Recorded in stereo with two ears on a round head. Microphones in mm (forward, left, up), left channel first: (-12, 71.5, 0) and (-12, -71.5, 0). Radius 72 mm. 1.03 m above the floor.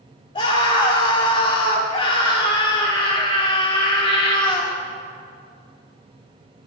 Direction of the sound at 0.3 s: 30° left (ahead or behind).